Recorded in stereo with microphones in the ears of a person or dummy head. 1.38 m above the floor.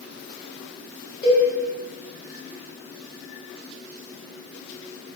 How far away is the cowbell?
About 1.4 m.